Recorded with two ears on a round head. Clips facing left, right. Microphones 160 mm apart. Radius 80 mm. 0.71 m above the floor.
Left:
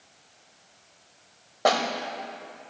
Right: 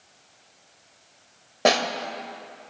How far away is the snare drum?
About 0.8 m.